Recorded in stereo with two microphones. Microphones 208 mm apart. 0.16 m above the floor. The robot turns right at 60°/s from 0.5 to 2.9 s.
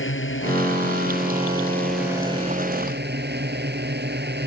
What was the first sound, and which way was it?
A drone, 95° left.